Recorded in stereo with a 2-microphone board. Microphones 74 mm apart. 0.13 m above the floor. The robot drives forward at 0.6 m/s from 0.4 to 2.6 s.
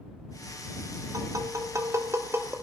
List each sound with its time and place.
1.1 s tapping: 50° right (ahead or behind), 1.0 m; by 2.5 s 35° right (ahead or behind), 1.4 m